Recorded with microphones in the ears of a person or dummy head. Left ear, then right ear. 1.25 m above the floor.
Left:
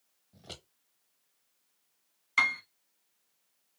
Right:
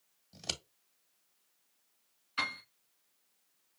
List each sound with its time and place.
0.3 s scissors: 70° right (ahead or behind), 1.4 m
2.4 s a piano: 40° left (ahead or behind), 1.2 m